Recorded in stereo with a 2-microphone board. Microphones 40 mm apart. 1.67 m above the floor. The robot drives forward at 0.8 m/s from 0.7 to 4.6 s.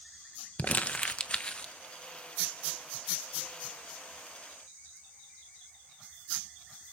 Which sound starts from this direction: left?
Crumpling, at 0.6 s.